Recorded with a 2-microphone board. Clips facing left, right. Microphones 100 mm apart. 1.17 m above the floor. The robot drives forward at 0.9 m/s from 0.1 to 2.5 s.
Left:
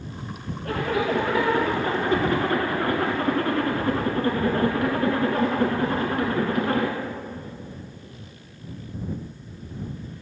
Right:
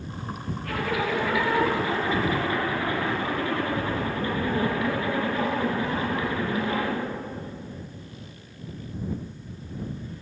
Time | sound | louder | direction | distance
0.7 | a zipper | left 3 dB | 35° left (ahead or behind) | 3.5 m